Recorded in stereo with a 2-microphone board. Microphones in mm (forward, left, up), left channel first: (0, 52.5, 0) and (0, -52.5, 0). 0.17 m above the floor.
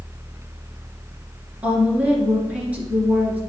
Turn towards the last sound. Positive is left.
turn(degrees=-15)  # may be behind; listen again after turning